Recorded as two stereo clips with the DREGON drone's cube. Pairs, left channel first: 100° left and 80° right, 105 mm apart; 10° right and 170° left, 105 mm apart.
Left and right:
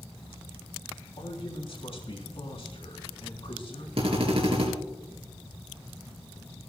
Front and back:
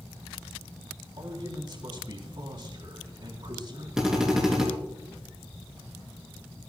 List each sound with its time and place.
1.2 s a man speaking: 130° left, 3.5 m
4.0 s a drill: 105° right, 3 m